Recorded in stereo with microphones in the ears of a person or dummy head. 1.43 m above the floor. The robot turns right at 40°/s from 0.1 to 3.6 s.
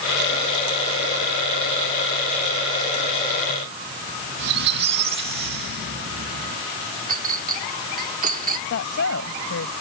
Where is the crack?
I don't hear a crack.